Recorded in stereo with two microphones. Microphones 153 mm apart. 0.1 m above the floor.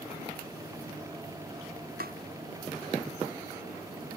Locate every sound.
2.0 s tapping: 75° right (ahead or behind)